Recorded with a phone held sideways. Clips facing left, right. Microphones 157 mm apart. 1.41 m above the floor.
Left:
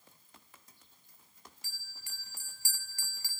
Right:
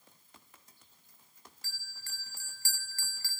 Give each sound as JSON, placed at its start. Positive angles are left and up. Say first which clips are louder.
{"t": 1.6, "sound": "a bell", "louder": "right 2 dB", "side_deg": 15, "distance_m": 1.1}